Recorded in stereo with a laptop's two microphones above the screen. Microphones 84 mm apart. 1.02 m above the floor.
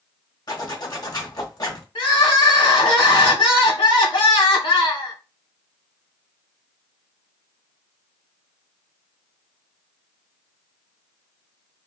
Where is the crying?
80° left, 1.3 m.